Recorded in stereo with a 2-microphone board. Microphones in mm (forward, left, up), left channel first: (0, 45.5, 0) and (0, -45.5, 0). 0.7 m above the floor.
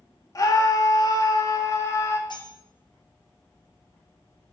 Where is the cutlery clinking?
55° left (ahead or behind), 3 m.